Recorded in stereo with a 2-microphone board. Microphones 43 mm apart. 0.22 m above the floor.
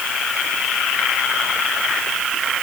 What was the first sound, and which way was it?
Only background noise.